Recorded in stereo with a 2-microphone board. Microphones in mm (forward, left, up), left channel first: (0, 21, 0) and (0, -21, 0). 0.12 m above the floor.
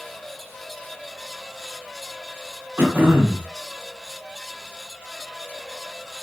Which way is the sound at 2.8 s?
55° right (ahead or behind).